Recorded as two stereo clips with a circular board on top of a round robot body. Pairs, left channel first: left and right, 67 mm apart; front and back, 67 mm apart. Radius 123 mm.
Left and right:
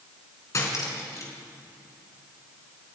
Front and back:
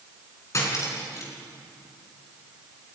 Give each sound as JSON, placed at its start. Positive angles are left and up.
{"t": 0.5, "sound": "cutlery clinking", "azimuth_deg": 45, "distance_m": 4.5}